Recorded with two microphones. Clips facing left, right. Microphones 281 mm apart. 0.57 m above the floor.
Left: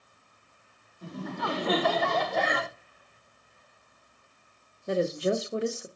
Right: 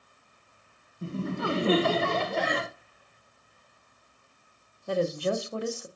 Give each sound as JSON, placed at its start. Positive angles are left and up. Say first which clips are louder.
{"t": 1.0, "sound": "laughter", "louder": "right 4 dB", "side_deg": -30, "distance_m": 0.7}
{"t": 2.3, "sound": "breathing", "louder": "even", "side_deg": 70, "distance_m": 2.5}
{"t": 4.9, "sound": "a woman speaking", "louder": "left 1 dB", "side_deg": 20, "distance_m": 0.9}